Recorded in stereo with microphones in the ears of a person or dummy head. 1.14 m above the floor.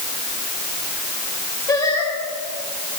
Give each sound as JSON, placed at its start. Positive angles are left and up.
{"t": 1.7, "sound": "singing", "side_deg": 15, "distance_m": 3.5}